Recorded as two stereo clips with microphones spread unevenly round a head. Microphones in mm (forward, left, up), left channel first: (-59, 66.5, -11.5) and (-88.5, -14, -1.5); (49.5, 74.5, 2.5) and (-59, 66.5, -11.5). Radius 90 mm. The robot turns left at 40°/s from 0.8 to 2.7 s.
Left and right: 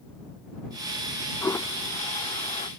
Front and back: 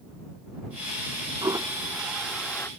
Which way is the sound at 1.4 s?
130° left.